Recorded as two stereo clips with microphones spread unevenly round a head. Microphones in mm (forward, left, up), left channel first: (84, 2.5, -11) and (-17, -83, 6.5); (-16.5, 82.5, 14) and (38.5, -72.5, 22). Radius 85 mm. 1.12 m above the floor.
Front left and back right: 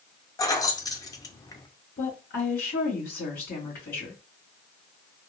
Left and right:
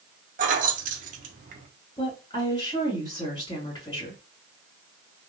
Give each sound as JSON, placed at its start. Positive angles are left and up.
{"t": 0.4, "sound": "keys jangling", "azimuth_deg": -25, "distance_m": 0.7}
{"t": 2.0, "sound": "a woman speaking", "azimuth_deg": 45, "distance_m": 2.5}